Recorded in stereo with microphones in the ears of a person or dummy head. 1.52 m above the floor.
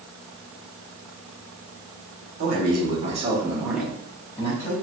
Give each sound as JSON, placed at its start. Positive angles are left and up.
{"t": 2.4, "sound": "a man speaking", "side_deg": -55, "distance_m": 1.3}